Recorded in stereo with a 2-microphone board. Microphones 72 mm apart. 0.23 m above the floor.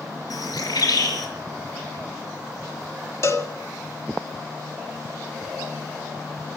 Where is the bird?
60° left (ahead or behind), 5 m.